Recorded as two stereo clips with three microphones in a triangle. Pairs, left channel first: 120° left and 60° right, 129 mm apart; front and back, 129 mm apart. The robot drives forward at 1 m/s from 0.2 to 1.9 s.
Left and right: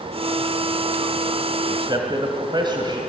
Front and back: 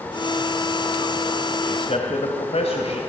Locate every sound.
1.6 s a man speaking: 15° right, 2.5 m